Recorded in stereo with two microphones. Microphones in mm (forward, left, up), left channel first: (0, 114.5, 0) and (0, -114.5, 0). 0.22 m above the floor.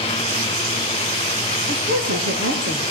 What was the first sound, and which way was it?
A woman speaking, 75° right (ahead or behind).